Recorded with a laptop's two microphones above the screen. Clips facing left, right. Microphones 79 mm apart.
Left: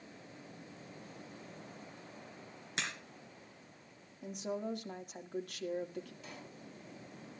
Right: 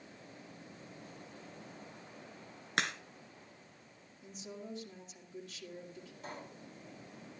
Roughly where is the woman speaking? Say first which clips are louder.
Left 8 dB; left.